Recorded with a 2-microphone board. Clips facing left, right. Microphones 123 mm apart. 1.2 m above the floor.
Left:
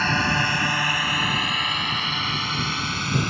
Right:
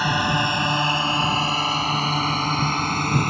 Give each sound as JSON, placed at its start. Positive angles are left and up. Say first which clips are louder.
{"t": 0.0, "sound": "a drone", "louder": "right 2 dB", "side_deg": -10}